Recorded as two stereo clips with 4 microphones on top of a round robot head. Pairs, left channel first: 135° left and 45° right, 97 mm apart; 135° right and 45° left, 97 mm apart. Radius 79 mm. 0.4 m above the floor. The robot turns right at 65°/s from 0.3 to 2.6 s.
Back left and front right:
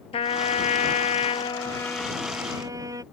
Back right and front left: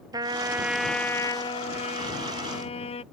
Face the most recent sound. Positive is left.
turn(degrees=-110)